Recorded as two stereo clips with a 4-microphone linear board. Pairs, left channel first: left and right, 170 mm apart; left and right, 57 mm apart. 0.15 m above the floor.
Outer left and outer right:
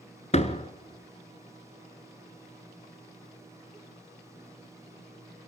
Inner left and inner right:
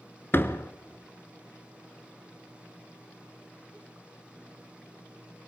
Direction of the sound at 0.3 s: 40° left (ahead or behind).